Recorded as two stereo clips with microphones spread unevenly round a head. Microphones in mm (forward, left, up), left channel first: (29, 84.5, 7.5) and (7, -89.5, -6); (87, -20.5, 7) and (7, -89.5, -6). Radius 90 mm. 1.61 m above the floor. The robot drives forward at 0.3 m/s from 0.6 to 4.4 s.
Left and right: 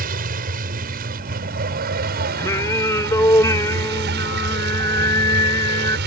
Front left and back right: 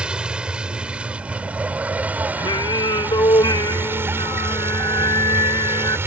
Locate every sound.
0.0 s a vehicle: 55° right; by 6.1 s 70° right
2.4 s singing: 15° left; by 6.0 s 25° left